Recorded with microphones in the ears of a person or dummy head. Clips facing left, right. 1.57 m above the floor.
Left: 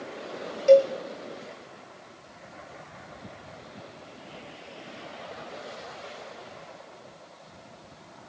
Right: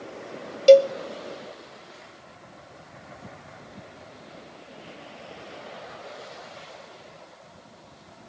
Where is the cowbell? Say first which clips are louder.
Right 4 dB; 50° right (ahead or behind), 1.1 m.